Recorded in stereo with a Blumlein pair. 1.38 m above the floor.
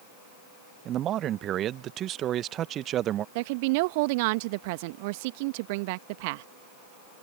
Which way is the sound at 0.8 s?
30° right.